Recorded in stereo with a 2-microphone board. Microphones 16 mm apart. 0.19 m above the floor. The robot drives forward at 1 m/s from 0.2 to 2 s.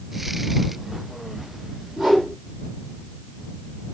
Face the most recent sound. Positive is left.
turn(degrees=-55)  # may be behind; listen again after turning